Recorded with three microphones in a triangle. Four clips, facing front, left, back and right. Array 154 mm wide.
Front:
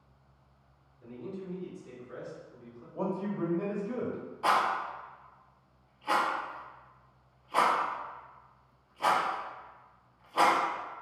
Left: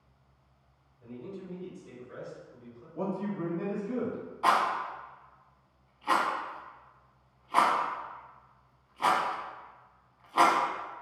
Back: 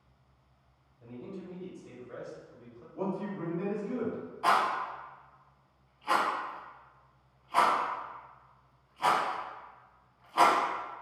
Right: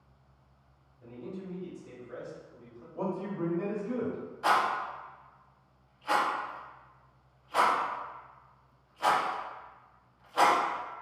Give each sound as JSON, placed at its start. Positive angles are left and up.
{"t": 1.0, "sound": "a man speaking", "azimuth_deg": -155, "distance_m": 1.7}
{"t": 3.0, "sound": "a man speaking", "azimuth_deg": -25, "distance_m": 0.9}
{"t": 4.4, "sound": "a rattle", "azimuth_deg": 90, "distance_m": 0.7}